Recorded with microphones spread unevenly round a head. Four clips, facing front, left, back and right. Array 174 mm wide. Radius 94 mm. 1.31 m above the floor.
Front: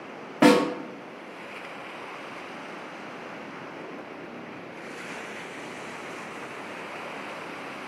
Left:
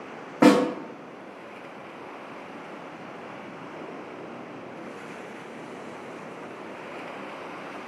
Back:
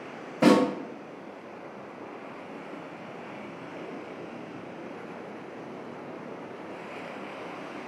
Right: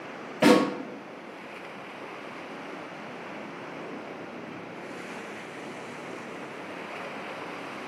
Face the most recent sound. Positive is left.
turn(degrees=45)